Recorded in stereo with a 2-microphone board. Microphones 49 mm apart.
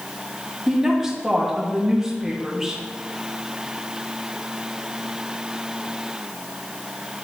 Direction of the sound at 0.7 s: 10° right (ahead or behind).